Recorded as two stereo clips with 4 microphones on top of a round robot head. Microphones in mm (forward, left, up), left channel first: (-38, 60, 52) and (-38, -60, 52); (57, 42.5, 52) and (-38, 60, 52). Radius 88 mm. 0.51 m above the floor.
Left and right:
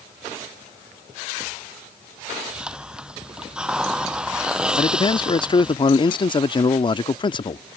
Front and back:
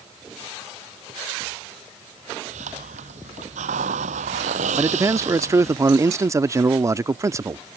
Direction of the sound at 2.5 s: 175° right.